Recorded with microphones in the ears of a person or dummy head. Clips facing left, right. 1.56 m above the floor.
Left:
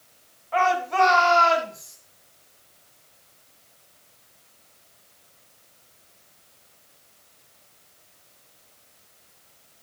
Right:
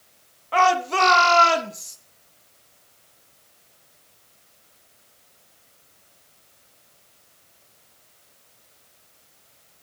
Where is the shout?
60° right (ahead or behind), 2 m; by 2.0 s 40° right (ahead or behind), 3 m.